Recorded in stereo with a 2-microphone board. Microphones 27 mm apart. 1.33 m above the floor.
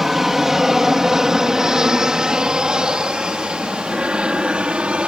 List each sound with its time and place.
0.0 s an aircraft: 15° right (ahead or behind); by 5.1 s 45° right (ahead or behind)